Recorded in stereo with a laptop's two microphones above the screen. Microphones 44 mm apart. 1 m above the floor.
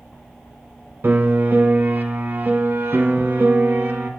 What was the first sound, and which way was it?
A piano, 50° right (ahead or behind).